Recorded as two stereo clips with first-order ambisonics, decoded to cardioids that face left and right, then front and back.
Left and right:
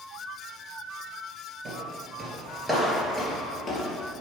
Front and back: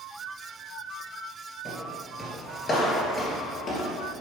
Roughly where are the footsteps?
Right.